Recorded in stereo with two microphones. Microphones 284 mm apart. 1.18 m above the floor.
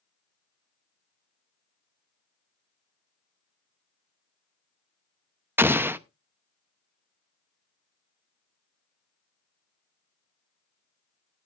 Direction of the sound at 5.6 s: 10° right (ahead or behind).